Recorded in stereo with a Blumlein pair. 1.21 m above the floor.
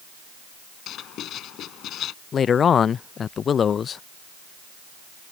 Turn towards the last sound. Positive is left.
turn(degrees=25)